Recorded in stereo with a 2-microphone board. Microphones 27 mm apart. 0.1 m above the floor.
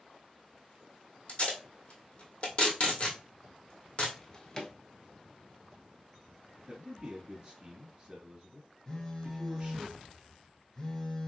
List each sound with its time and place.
1.3 s tape being pulled: 45° left (ahead or behind), 1.4 m
4.2 s a drawer: 25° left (ahead or behind), 0.8 m
6.7 s a man speaking: 30° right (ahead or behind), 1.7 m
8.9 s a phone buzzing: 25° left (ahead or behind), 1.0 m